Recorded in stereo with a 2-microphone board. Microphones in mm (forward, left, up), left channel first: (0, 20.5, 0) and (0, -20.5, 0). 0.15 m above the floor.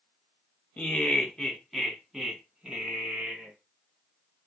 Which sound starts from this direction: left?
Laughter, at 0.8 s.